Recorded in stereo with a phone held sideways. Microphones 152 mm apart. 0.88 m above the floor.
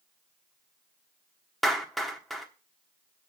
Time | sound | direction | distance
1.6 | a clap | centre (ahead or behind) | 1.2 m